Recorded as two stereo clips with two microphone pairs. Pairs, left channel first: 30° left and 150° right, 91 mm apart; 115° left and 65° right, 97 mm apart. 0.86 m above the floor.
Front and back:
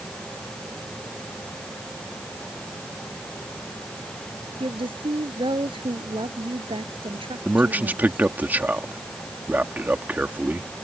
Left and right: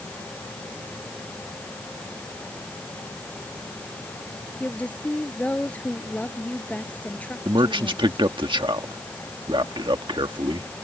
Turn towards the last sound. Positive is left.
turn(degrees=-85)